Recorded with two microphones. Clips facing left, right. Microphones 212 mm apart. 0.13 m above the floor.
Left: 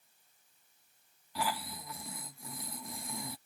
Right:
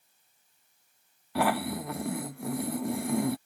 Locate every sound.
1.4 s snoring: 65° right (ahead or behind)